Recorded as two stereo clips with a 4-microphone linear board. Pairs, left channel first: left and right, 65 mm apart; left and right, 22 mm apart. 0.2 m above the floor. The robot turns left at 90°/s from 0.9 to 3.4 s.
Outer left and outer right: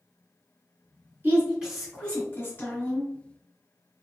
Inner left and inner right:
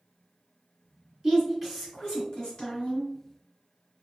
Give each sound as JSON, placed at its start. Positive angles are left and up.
{"t": 1.2, "sound": "a woman speaking", "azimuth_deg": -130, "distance_m": 1.4}